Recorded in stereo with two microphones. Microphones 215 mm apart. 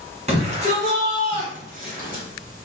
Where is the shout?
30° right (ahead or behind), 1.8 m; by 2.2 s 40° right (ahead or behind), 2 m.